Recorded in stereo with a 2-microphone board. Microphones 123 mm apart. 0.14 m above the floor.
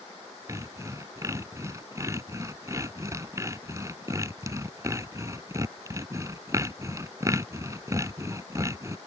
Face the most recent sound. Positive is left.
turn(degrees=-25)  # may be behind; listen again after turning